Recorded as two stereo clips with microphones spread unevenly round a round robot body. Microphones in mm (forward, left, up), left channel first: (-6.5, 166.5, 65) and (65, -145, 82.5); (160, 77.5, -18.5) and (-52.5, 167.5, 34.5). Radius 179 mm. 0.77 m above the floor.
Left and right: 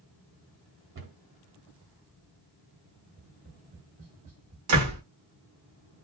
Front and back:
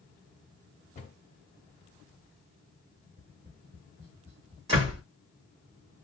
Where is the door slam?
120° right, 1.7 m.